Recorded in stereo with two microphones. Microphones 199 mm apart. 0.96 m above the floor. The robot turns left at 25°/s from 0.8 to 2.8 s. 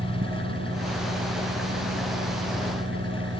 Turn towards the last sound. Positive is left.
turn(degrees=-115)